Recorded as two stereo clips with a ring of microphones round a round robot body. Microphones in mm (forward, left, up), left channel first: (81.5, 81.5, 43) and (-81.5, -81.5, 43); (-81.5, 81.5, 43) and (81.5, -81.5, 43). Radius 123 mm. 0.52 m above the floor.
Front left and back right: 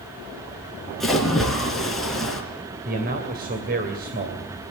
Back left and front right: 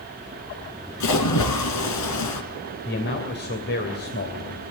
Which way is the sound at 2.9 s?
175° left.